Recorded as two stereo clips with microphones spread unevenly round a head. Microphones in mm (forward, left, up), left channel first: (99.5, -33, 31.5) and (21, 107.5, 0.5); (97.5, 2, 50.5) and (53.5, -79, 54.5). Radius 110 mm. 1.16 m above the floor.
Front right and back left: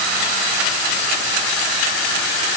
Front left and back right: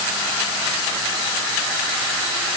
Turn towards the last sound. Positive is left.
No sound to turn to.